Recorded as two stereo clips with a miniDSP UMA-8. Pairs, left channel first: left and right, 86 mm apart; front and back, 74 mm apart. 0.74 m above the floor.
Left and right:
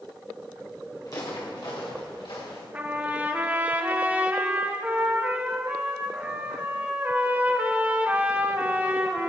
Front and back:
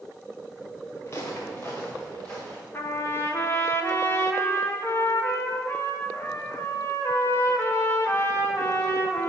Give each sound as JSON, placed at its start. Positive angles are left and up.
{"t": 1.1, "sound": "footsteps", "azimuth_deg": 50, "distance_m": 4.5}
{"t": 2.7, "sound": "a trumpet", "azimuth_deg": -30, "distance_m": 1.3}